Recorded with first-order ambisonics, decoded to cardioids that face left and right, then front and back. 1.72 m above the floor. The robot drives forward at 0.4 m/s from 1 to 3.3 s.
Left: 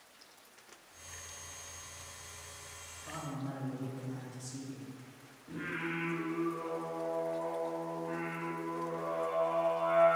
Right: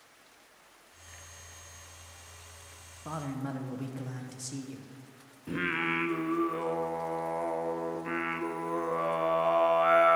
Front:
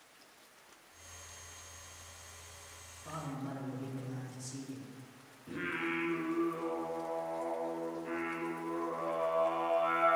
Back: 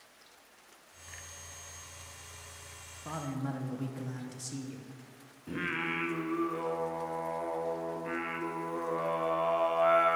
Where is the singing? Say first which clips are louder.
Right 8 dB, back 3 dB; 105° right, 0.6 m.